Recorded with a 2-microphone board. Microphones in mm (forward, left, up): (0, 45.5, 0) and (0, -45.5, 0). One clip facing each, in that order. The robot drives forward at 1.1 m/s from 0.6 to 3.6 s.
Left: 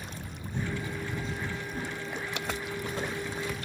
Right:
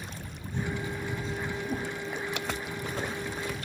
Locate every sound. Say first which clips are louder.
1.6 s a whoosh: right 3 dB; 60° right (ahead or behind), 6.5 m